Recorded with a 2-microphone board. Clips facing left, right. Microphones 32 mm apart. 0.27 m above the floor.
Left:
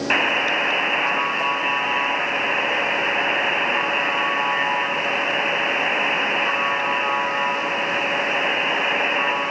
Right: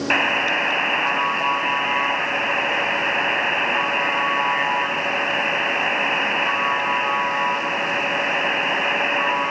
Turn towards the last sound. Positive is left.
turn(degrees=-5)  # may be behind; listen again after turning